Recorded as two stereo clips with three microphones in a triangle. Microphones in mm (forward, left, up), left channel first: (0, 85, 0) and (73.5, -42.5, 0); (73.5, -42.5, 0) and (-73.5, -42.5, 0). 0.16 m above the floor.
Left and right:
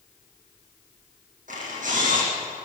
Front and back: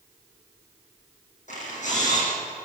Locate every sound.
1.5 s a camera shutter: 30° right, 9.5 m